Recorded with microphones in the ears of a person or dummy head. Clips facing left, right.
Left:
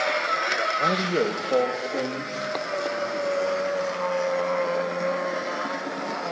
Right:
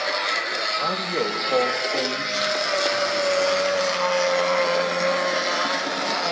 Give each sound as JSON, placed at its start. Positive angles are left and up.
{"t": 0.8, "sound": "a man speaking", "side_deg": 35, "distance_m": 1.2}